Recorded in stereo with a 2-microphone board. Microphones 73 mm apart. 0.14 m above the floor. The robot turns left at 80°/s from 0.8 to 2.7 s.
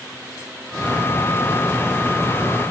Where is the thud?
No thud in this recording.